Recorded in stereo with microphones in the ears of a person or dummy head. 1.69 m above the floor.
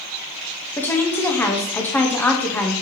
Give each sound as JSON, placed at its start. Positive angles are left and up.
{"t": 0.8, "sound": "a woman speaking", "side_deg": 10, "distance_m": 0.8}